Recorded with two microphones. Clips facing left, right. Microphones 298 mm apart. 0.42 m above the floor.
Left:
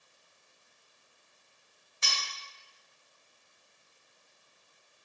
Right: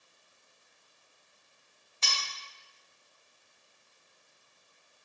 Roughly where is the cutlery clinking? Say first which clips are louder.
Right 1 dB; centre.